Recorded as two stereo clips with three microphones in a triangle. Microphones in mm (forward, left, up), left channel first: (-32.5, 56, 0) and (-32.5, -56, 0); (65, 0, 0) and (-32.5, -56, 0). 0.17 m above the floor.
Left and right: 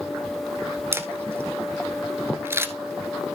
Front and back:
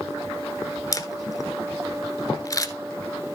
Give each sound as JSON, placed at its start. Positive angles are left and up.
{"t": 0.9, "sound": "a camera shutter", "azimuth_deg": -25, "distance_m": 1.1}